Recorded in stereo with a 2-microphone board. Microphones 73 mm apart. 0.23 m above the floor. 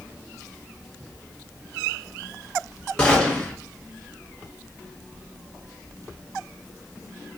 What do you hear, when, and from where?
3.0 s a gunshot: 10° left (ahead or behind), 0.9 m